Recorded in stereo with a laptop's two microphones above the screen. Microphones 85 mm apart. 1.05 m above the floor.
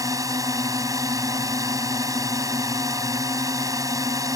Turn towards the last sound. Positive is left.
turn(degrees=-40)  # may be behind; listen again after turning